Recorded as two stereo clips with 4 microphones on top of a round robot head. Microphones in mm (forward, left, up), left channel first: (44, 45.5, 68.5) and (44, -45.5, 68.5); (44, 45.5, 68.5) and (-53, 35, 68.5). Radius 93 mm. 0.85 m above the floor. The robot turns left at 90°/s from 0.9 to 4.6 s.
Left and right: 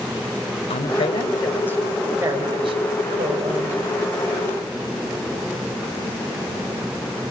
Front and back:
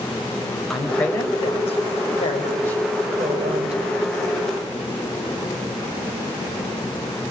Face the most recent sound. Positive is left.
turn(degrees=120)